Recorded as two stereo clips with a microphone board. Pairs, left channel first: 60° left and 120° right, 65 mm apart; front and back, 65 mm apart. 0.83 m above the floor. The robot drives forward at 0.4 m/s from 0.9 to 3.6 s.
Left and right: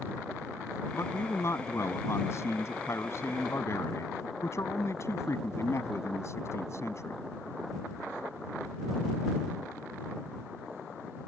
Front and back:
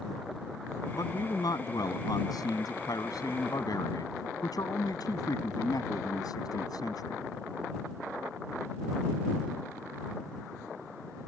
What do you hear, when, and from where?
0.9 s a man speaking: 15° left